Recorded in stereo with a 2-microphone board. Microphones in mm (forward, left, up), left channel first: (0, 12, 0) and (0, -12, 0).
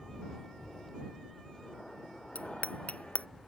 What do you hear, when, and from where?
0.0 s an aircraft: 15° left (ahead or behind); by 3.5 s 5° left (ahead or behind)
2.4 s a bicycle bell: 65° left (ahead or behind)